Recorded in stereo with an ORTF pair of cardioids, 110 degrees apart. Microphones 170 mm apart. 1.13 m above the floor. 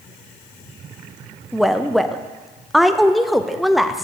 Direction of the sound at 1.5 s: Straight ahead.